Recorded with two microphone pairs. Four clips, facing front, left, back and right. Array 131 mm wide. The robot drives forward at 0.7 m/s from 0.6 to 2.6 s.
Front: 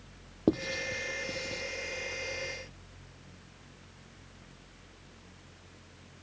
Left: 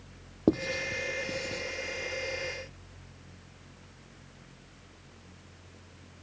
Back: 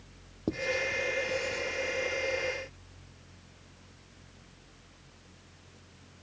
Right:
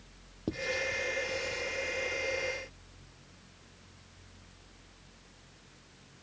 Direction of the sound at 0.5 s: 55° left.